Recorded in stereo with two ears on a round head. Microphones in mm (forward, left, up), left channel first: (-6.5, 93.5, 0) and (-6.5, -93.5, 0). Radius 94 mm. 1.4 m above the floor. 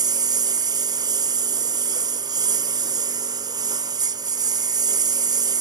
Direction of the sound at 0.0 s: 20° right (ahead or behind).